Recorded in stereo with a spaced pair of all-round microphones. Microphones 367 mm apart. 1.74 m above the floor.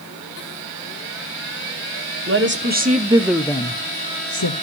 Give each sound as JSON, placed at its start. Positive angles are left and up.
{"t": 2.3, "sound": "a woman speaking", "side_deg": -35, "distance_m": 1.6}